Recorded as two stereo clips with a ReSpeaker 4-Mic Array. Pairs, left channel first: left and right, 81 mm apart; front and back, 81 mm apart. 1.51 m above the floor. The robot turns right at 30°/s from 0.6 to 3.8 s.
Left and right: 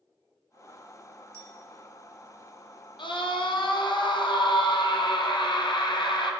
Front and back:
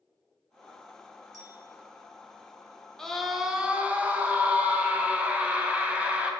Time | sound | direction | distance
1.3 | a clink | 135° right | 2 m
3.0 | a scream | 85° left | 0.9 m